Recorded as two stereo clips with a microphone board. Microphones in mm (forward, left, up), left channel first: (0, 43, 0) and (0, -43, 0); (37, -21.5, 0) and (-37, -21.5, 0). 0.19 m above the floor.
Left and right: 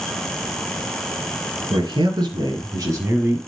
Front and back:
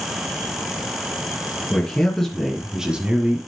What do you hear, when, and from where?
1.7 s a man speaking: 75° right, 3 m; by 3.4 s 135° right, 1.7 m